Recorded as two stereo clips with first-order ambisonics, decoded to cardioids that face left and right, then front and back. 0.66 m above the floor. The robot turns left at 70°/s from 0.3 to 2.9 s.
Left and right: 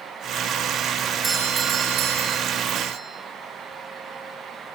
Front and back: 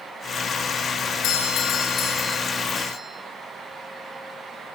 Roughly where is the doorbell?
Ahead.